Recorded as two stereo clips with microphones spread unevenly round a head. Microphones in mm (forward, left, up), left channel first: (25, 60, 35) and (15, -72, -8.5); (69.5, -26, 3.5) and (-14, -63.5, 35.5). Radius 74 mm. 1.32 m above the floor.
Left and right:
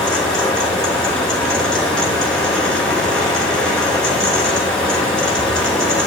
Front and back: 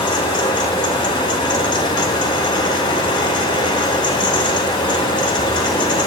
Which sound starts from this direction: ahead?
A fan, at 0.0 s.